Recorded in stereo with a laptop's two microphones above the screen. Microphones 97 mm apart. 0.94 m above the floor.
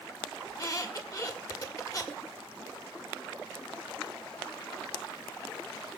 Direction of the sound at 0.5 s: 40° left (ahead or behind).